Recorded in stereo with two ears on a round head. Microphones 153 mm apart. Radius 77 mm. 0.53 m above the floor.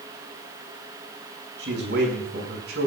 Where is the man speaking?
70° right (ahead or behind), 6.5 m.